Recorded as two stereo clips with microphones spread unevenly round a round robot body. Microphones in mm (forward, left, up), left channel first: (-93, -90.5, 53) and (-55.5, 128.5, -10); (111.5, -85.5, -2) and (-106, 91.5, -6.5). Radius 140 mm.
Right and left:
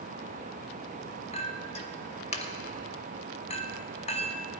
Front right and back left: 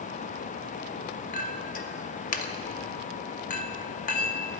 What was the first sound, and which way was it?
A clink, 35° right.